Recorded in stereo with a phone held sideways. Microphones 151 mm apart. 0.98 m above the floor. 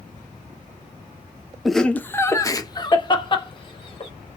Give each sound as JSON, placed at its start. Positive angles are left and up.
{"t": 1.6, "sound": "laughter", "side_deg": 0, "distance_m": 0.5}